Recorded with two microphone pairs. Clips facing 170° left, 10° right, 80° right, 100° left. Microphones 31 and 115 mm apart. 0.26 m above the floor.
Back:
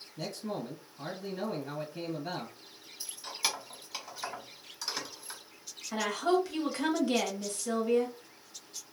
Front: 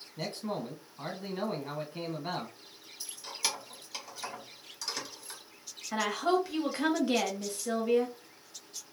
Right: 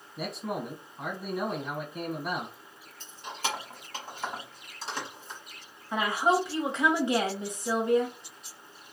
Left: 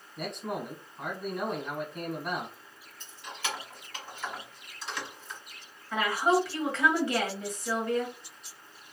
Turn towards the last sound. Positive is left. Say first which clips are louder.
# even, even
turn(degrees=-70)